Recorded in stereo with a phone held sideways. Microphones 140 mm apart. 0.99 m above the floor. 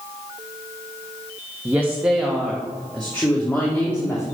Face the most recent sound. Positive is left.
turn(degrees=15)  # may be behind; listen again after turning